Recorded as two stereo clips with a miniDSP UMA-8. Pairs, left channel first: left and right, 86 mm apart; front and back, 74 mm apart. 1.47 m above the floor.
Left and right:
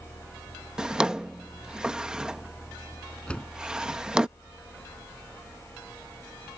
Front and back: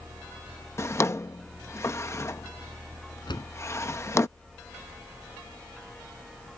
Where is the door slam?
10° left.